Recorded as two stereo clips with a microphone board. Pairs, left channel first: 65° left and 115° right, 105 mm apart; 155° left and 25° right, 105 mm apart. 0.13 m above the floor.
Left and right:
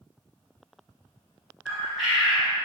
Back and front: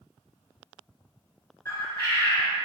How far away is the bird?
About 1.7 m.